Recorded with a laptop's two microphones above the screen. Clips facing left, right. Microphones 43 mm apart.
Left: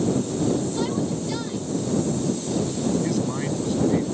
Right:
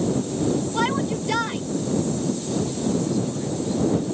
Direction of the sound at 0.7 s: 70° right (ahead or behind).